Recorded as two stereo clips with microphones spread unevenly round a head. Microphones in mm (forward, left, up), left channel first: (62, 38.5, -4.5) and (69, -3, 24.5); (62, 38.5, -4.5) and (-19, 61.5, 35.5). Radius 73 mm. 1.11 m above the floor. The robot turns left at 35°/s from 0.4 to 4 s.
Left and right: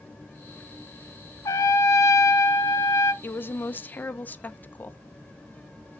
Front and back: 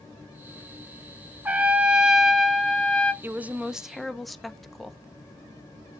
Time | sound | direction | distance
1.4 | a trumpet | 140° left | 1.0 m
3.2 | a woman speaking | 95° left | 1.4 m